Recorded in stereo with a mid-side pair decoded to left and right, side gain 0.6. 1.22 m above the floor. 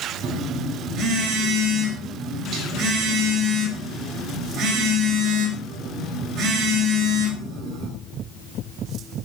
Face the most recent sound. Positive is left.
turn(degrees=-50)